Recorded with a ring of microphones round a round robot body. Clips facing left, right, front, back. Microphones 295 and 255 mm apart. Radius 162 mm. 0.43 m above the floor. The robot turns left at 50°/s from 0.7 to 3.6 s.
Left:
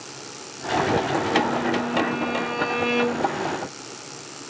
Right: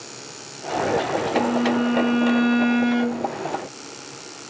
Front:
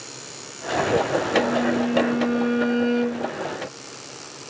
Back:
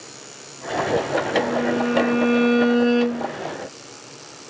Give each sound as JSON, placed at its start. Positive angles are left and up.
{"t": 1.4, "sound": "a violin", "azimuth_deg": -70, "distance_m": 3.0}